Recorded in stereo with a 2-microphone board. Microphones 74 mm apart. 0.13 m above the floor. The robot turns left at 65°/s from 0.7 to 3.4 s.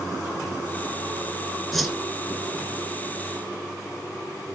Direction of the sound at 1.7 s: 5° left (ahead or behind).